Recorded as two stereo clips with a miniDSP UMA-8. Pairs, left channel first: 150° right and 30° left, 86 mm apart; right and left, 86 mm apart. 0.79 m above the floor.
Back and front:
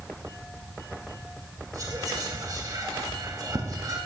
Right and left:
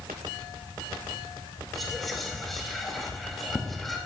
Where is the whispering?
Straight ahead, 1.5 m.